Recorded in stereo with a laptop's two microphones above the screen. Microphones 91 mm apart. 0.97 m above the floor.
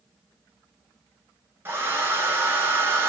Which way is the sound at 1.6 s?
25° right (ahead or behind).